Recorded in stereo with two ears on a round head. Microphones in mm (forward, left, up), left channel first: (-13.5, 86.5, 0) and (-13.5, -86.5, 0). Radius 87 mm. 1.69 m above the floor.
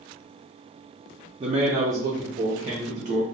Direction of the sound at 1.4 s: 25° right (ahead or behind).